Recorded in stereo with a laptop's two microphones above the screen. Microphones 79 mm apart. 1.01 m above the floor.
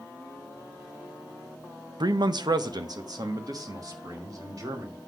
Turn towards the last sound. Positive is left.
turn(degrees=-50)  # may be behind; listen again after turning